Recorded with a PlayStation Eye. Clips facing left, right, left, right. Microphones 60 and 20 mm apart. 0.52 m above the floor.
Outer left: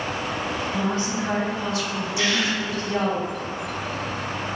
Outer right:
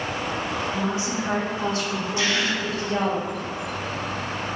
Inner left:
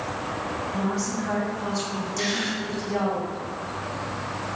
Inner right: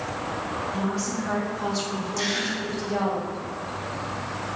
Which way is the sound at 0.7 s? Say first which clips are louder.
Outer left 1 dB, inner left 2 dB; 5° right (ahead or behind).